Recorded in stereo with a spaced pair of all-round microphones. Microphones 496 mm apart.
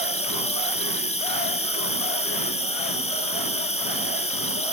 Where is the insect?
10° left (ahead or behind), 1.5 m.